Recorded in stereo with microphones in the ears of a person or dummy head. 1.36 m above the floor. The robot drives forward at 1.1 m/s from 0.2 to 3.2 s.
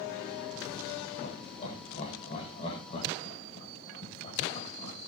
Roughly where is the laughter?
Left.